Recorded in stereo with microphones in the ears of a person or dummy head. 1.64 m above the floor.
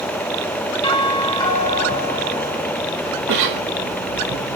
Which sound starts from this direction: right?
A cough, at 3.3 s.